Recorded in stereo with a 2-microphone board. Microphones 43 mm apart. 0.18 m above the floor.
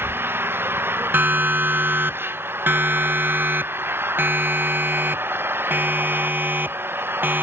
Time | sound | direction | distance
0.0 | an engine running | 60° right (ahead or behind) | ?
1.1 | a siren | 50° right (ahead or behind) | ?